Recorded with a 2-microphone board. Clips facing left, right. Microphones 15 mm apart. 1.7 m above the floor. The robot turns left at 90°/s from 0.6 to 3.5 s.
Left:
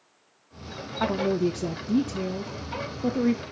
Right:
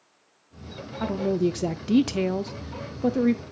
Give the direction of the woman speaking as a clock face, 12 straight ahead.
11 o'clock.